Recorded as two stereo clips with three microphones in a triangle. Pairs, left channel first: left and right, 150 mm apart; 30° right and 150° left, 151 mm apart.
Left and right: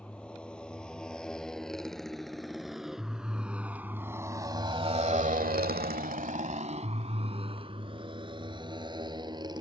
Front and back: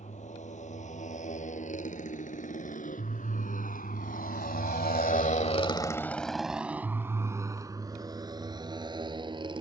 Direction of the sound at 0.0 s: 5° left.